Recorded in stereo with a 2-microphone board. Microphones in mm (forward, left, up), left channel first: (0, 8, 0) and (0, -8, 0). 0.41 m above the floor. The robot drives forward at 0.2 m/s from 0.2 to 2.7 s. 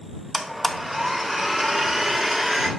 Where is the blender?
5° right (ahead or behind), 0.8 m.